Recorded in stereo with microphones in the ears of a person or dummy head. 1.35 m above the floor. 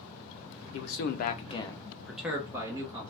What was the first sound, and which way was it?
A man speaking, 75° left (ahead or behind).